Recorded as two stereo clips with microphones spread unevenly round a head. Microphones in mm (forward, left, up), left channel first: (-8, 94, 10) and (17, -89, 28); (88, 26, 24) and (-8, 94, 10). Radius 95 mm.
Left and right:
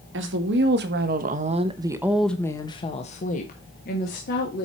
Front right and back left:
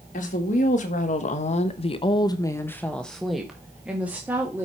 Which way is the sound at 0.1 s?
65° right.